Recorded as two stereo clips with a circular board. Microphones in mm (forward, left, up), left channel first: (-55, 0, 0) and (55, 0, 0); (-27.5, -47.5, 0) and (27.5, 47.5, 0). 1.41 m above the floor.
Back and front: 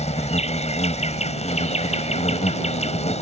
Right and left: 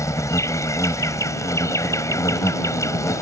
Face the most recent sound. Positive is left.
turn(degrees=180)